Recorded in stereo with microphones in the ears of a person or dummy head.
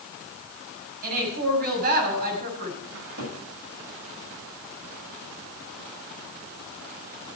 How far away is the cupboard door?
About 8 m.